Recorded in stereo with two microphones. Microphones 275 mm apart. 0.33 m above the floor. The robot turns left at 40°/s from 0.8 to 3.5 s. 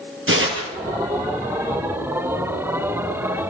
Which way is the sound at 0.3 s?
45° right (ahead or behind).